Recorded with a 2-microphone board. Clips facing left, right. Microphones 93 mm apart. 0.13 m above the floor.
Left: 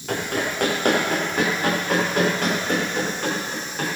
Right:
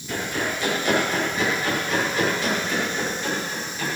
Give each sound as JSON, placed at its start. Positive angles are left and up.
{"t": 0.1, "sound": "running footsteps", "side_deg": 60, "distance_m": 6.5}